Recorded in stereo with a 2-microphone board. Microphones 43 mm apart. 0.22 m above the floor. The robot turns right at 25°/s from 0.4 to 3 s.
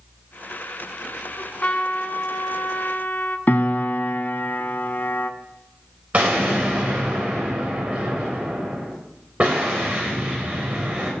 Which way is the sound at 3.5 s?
45° left (ahead or behind).